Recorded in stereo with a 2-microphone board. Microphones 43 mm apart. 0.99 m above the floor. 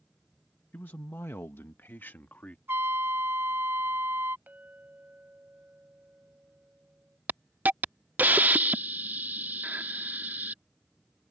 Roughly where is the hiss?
Right.